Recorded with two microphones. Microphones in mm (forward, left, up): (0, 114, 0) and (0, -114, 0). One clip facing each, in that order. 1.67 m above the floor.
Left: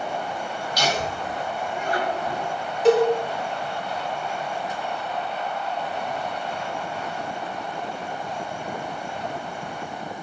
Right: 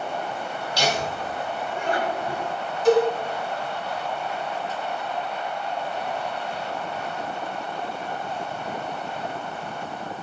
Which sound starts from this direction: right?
Laughter, at 0.8 s.